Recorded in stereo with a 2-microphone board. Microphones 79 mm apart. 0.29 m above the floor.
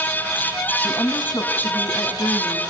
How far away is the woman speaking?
About 2.5 m.